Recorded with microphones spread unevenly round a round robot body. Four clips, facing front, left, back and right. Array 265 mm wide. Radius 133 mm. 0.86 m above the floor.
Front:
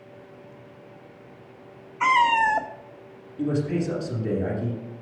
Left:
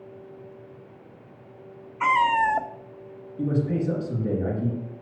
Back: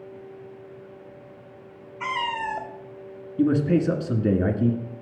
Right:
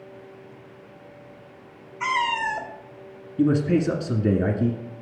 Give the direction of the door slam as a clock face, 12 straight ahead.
No door slam in this recording.